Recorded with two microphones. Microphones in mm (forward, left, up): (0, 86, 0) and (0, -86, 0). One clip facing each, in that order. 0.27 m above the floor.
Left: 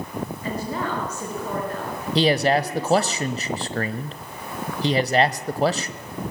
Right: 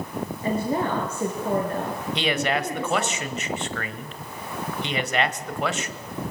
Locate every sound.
0.4 s a woman speaking: 25° right (ahead or behind), 4.5 m
2.1 s a man speaking: 35° left (ahead or behind), 1.2 m